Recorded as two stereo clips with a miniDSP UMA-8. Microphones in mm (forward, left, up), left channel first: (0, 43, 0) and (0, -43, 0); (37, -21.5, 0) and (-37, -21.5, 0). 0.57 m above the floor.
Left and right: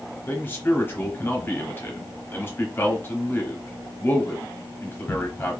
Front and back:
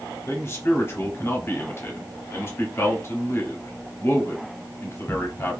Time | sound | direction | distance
0.3 | a man speaking | 35° left | 1.0 m